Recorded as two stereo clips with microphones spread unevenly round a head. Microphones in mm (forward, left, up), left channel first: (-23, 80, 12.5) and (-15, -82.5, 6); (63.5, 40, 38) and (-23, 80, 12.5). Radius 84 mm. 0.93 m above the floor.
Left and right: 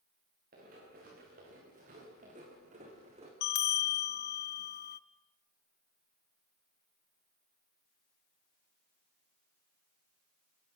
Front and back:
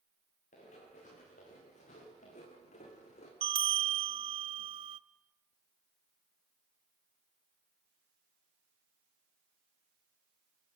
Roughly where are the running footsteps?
Ahead right.